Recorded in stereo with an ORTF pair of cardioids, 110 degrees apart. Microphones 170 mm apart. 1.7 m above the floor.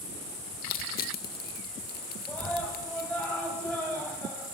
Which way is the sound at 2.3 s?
10° left.